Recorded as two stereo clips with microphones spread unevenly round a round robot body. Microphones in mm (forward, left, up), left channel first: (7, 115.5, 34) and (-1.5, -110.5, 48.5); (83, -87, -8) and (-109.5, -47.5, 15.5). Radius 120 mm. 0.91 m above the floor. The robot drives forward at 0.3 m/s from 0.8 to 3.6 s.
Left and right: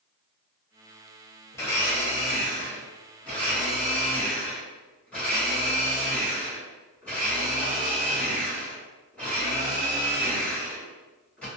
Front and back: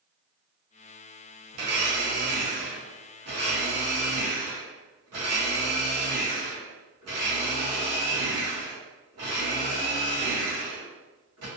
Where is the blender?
165° left, 0.8 m; by 11.5 s 175° left, 1.4 m.